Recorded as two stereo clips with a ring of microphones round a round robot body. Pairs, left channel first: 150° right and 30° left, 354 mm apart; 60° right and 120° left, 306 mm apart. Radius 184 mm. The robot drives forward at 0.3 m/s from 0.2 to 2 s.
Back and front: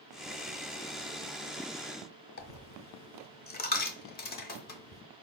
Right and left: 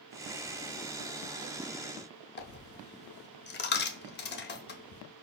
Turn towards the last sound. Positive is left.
turn(degrees=-100)